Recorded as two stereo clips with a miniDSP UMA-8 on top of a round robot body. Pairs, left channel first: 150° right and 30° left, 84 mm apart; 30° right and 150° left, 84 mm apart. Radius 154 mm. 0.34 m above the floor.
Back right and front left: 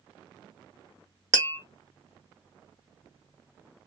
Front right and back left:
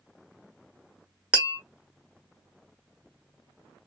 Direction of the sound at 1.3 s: 80° left.